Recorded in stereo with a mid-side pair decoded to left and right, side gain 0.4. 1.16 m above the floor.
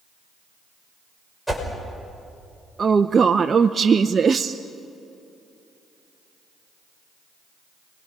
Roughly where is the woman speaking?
Ahead right.